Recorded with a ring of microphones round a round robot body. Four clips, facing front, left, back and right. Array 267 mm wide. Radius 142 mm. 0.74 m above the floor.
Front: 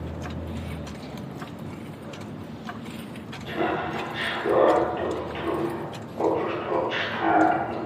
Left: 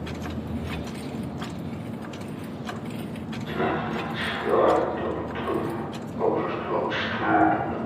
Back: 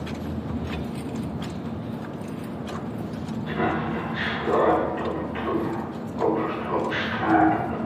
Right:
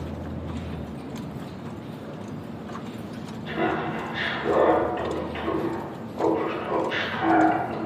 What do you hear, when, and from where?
3.5 s laughter: 45° right, 4 m